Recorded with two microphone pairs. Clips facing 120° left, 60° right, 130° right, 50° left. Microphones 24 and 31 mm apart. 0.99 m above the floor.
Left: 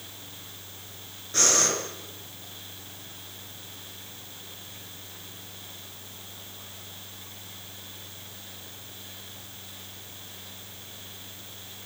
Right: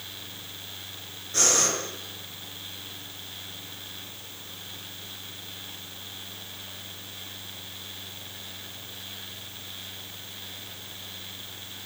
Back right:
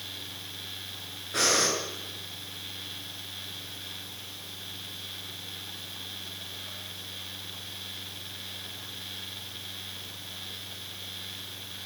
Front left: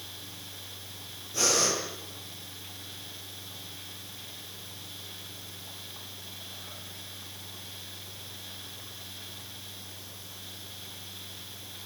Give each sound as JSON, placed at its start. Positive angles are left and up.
{"t": 1.3, "sound": "breathing", "azimuth_deg": -160, "distance_m": 8.5}